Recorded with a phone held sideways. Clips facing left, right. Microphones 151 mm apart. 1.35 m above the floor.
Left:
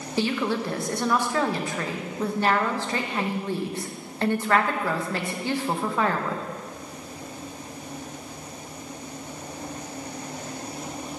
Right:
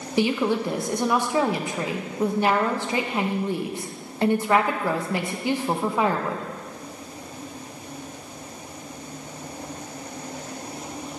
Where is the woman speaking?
15° right (ahead or behind), 1.1 m.